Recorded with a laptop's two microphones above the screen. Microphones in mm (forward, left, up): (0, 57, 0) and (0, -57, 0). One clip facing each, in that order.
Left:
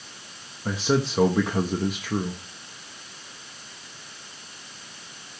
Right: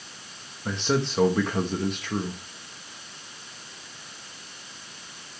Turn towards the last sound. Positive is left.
turn(degrees=5)  # may be behind; listen again after turning